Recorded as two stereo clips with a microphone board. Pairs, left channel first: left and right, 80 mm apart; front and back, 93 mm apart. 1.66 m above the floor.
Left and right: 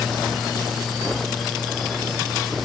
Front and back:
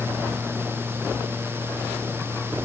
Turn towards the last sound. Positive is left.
No sound to turn to.